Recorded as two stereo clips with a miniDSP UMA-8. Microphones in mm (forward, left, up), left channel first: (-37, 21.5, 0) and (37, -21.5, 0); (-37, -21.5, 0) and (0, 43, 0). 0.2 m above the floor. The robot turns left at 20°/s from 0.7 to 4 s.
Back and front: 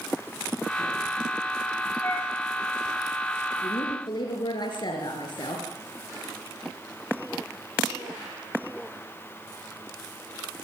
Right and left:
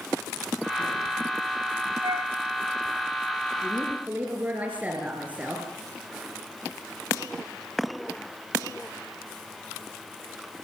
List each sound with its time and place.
2.0 s a flute: 90° left, 3.5 m; by 2.3 s 85° left, 3.5 m
3.6 s a woman speaking: 135° left, 3.5 m; by 5.7 s 125° left, 3.5 m